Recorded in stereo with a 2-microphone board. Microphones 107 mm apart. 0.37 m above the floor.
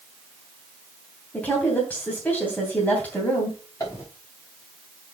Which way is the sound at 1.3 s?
15° left (ahead or behind).